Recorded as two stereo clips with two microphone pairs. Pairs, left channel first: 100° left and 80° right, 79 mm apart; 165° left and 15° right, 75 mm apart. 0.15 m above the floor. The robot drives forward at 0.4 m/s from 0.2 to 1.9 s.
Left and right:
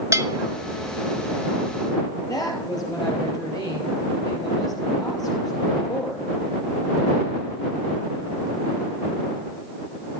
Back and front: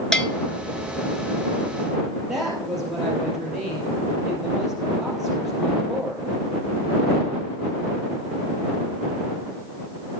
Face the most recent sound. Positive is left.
turn(degrees=65)